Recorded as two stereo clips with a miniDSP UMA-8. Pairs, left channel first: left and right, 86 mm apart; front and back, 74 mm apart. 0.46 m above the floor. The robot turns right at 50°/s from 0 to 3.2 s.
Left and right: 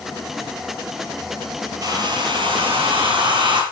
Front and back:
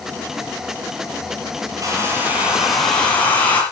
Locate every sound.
1.8 s a hair dryer: 140° right, 5.5 m; by 3.6 s 70° right, 5.5 m